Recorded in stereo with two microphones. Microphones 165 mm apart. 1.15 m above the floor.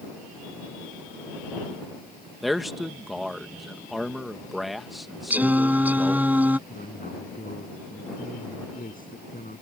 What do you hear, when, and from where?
2.4 s a man speaking: centre (ahead or behind)
5.3 s singing: 10° right (ahead or behind)
6.7 s a man speaking: 60° left (ahead or behind)